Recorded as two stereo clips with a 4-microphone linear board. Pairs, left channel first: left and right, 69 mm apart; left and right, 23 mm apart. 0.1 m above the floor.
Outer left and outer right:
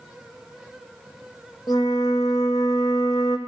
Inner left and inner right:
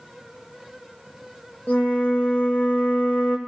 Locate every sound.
1.7 s a flute: 65° left (ahead or behind), 1.0 m